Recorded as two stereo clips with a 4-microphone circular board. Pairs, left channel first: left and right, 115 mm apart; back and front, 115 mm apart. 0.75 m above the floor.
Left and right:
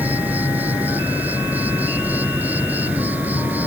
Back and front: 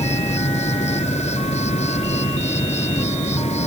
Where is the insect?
165° right.